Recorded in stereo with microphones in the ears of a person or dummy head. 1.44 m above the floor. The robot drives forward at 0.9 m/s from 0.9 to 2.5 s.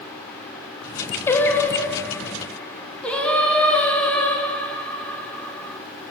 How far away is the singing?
About 1.1 m.